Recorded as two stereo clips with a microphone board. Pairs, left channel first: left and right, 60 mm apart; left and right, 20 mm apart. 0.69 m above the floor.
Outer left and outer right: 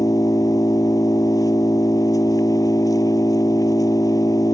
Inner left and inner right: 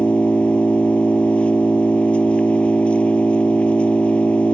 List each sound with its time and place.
0.0 s an engine running: 70° left (ahead or behind)